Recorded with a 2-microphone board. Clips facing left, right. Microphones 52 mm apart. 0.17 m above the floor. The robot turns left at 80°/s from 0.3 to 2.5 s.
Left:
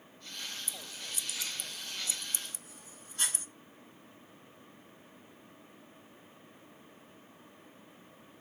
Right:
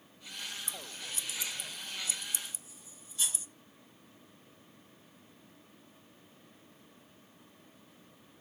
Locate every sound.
0.7 s scissors: 60° right (ahead or behind), 0.8 m; by 3.5 s 55° left (ahead or behind), 0.8 m